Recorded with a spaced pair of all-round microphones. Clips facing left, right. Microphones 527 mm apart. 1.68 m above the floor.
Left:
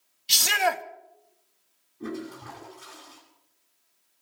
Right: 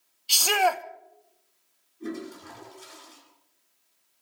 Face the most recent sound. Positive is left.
turn(degrees=75)  # may be behind; listen again after turning